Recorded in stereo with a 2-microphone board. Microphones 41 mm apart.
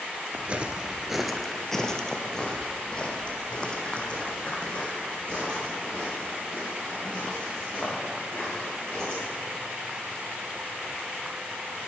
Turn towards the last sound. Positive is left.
turn(degrees=35)  # may be behind; listen again after turning